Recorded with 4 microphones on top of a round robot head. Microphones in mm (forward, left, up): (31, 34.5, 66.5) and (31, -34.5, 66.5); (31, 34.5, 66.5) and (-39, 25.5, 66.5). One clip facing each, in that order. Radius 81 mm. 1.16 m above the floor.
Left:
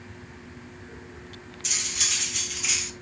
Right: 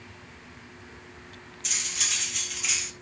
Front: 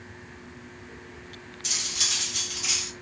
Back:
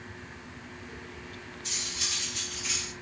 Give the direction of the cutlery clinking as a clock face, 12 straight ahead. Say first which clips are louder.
Left 1 dB, front 5 dB; 12 o'clock.